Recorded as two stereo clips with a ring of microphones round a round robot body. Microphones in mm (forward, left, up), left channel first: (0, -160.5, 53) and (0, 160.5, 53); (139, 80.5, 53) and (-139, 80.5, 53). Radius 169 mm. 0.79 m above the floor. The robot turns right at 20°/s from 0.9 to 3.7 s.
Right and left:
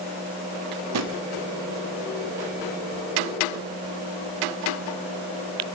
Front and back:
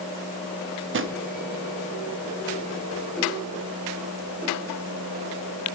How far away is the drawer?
About 0.6 m.